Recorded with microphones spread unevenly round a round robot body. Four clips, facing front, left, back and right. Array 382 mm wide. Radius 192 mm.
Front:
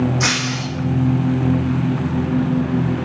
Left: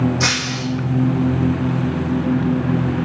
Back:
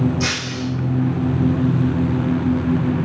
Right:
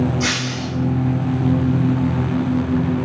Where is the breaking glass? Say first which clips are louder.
Left 1 dB, front 2 dB; 55° left, 6.5 m.